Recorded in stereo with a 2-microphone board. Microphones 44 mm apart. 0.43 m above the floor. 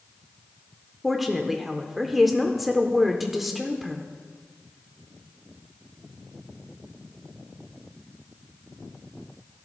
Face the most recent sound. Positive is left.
turn(degrees=-5)  # may be behind; listen again after turning